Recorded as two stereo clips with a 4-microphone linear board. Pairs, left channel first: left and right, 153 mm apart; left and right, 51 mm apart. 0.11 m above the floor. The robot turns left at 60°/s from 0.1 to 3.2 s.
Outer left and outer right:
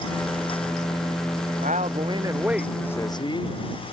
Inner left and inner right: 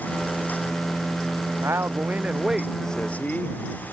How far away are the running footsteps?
I don't hear running footsteps.